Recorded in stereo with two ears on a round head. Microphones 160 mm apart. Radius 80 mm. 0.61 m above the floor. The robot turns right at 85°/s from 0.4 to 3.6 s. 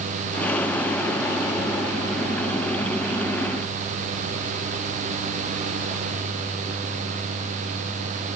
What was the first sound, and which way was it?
Only background noise.